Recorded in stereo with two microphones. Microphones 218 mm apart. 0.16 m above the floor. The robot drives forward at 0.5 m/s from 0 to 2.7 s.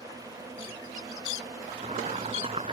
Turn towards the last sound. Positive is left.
turn(degrees=-25)  # may be behind; listen again after turning